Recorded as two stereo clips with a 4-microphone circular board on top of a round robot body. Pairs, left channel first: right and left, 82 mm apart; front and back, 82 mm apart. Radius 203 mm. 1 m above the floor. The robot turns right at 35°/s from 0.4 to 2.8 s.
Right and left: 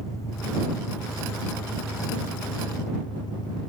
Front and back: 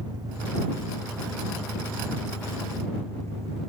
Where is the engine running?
140° right; by 3.7 s 55° right.